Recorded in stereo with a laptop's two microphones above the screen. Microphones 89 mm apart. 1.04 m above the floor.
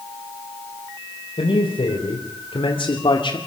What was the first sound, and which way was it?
A man speaking, 90° left.